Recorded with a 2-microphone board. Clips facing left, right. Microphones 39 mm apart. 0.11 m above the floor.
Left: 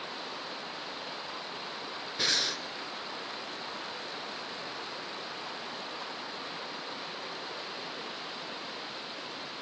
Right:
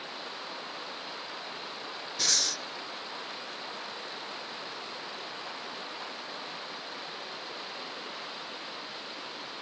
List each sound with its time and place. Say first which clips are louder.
2.2 s breathing: left 2 dB; 20° left (ahead or behind), 0.6 m